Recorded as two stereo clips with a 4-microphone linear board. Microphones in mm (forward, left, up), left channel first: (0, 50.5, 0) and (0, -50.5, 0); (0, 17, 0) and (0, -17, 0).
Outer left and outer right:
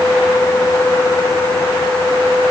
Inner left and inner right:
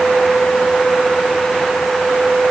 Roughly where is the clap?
No clap in this recording.